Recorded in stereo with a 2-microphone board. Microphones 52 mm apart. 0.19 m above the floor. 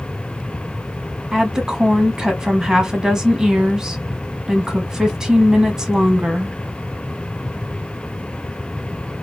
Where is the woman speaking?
10° right (ahead or behind), 1.2 m.